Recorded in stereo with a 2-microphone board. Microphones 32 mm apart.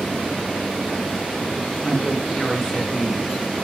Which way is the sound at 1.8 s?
5° right (ahead or behind).